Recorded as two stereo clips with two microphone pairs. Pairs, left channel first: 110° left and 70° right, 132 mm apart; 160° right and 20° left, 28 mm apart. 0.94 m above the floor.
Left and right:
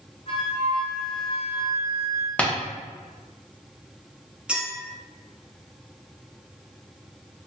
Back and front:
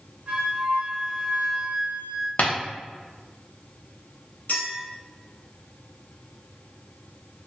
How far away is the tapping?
About 0.6 m.